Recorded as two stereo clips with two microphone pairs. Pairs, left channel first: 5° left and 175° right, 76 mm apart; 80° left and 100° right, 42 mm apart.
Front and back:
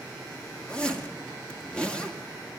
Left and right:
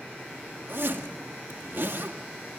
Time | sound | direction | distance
0.7 | a zipper | 70° right | 2.0 m